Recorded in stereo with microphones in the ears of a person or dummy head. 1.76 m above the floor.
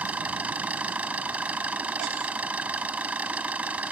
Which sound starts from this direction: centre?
An engine running, at 0.0 s.